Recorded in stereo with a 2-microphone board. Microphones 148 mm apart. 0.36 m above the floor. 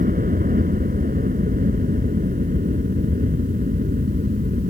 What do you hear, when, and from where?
0.0 s a helicopter: 75° right (ahead or behind)